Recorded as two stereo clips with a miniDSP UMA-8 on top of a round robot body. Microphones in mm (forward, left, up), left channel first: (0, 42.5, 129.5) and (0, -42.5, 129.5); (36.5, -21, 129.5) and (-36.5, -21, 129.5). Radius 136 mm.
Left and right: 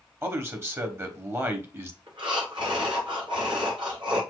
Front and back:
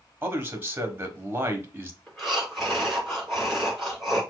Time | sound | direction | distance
0.2 | a man speaking | 135° right | 1.4 m
2.1 | breathing | 90° right | 2.5 m